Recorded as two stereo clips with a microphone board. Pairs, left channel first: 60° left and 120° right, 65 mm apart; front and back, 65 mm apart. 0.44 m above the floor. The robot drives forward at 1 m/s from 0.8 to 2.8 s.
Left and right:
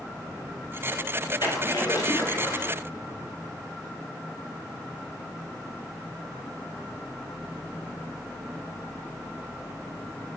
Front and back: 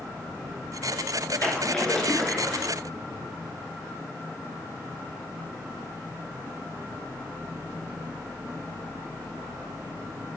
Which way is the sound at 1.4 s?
70° left.